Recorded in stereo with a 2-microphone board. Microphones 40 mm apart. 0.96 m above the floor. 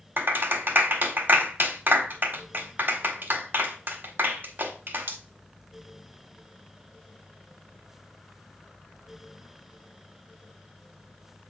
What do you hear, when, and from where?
0.2 s a clap: 50° right (ahead or behind), 1.2 m